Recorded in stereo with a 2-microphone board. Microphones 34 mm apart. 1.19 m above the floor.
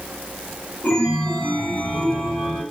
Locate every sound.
0.8 s a chime: 60° left (ahead or behind), 1.4 m